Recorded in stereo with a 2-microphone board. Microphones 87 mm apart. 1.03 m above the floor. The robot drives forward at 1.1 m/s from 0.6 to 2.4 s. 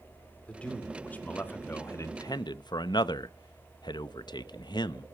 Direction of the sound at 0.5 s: 15° left (ahead or behind).